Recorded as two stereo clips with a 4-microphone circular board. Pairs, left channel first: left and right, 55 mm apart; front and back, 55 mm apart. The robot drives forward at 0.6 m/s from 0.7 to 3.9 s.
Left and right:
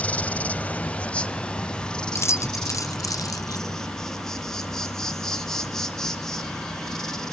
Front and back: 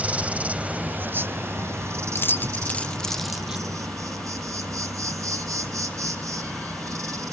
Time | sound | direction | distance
0.0 | an insect | 135° left | 0.9 m
2.1 | keys jangling | 45° left | 1.1 m